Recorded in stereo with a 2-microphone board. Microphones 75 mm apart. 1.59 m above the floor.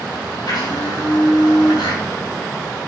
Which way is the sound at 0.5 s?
70° left (ahead or behind).